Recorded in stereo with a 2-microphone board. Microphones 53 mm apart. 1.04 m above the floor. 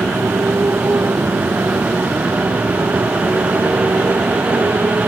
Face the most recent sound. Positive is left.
turn(degrees=-50)  # may be behind; listen again after turning